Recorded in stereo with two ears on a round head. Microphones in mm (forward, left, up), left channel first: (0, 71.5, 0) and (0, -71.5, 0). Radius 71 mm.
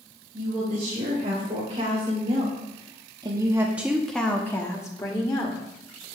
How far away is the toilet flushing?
I don't hear a toilet flushing.